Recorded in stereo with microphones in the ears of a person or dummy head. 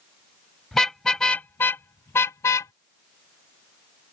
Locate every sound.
0.7 s a car horn: centre (ahead or behind); by 2.7 s 15° left (ahead or behind)